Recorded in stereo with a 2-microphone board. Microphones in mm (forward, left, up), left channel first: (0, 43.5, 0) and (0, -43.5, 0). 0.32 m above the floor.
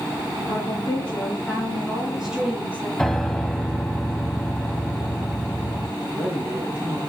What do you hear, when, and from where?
0.5 s a woman speaking: 35° left (ahead or behind), 4 m; by 2.9 s 20° right (ahead or behind), 4.5 m
3.0 s a piano: 5° left (ahead or behind), 0.8 m
6.0 s a man speaking: 20° right (ahead or behind), 3 m